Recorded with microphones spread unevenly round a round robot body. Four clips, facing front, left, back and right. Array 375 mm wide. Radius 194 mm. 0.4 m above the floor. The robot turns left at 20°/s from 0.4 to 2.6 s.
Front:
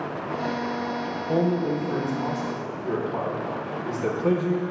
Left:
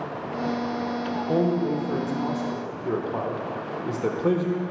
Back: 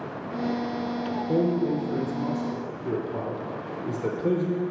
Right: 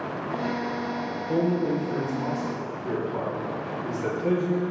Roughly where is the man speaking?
Behind.